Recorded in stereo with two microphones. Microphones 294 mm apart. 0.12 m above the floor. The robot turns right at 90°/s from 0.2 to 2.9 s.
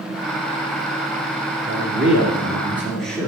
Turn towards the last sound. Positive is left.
turn(degrees=5)